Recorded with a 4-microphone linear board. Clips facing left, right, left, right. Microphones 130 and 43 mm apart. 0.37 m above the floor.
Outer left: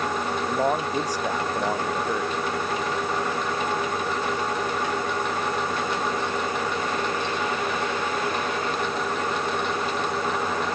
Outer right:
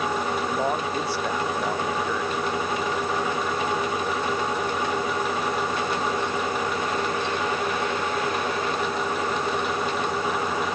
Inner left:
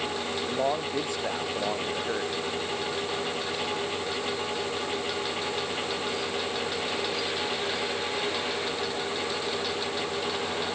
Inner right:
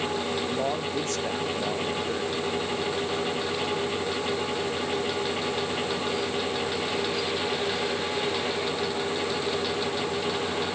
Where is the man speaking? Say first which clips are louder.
Outer left 1 dB, even; 10° left (ahead or behind); by 2.4 s 15° left (ahead or behind).